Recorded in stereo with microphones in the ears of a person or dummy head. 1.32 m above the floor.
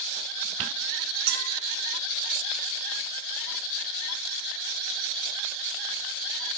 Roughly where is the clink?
Right.